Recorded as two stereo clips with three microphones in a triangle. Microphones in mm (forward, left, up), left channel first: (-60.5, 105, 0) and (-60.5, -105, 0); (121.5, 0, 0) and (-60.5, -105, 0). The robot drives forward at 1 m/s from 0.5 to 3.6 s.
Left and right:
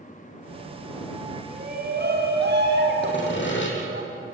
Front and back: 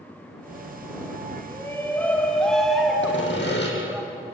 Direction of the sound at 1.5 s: 45° right.